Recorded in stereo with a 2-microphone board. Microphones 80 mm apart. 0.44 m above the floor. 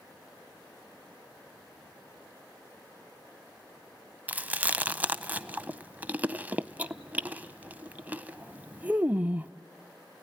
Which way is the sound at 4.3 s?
20° right (ahead or behind).